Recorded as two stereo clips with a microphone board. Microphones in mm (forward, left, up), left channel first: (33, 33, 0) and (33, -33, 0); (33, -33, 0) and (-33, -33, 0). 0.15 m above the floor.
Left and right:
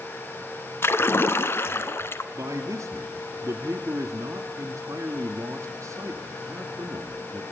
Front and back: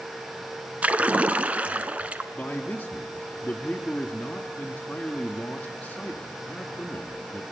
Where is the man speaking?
70° right, 1.5 m.